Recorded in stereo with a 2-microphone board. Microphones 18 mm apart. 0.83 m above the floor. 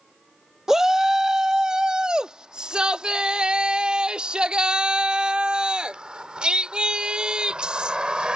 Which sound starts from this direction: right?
A shout, at 0.7 s.